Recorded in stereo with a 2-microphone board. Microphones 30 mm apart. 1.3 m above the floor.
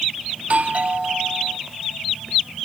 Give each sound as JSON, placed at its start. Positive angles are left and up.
{"t": 0.4, "sound": "a doorbell", "side_deg": -45}